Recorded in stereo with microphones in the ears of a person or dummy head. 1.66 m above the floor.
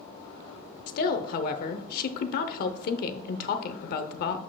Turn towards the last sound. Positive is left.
turn(degrees=55)  # may be behind; listen again after turning